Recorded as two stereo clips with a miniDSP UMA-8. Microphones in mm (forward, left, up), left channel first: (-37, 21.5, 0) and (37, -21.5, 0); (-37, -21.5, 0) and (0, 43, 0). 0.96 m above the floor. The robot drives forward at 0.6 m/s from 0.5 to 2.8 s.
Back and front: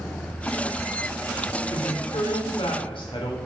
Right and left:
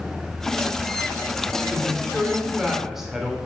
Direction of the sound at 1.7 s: 135° left.